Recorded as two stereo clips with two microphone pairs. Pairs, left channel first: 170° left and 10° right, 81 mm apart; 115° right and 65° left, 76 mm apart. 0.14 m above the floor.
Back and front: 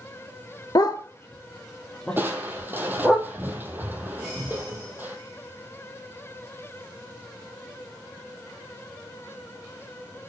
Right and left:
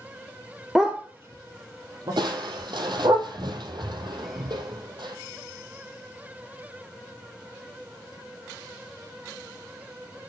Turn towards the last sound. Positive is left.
turn(degrees=55)